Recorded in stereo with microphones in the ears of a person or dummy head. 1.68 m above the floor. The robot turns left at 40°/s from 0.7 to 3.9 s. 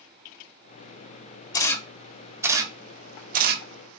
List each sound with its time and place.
1.5 s a camera shutter: 25° left (ahead or behind), 0.6 m; by 3.6 s 60° right (ahead or behind), 0.6 m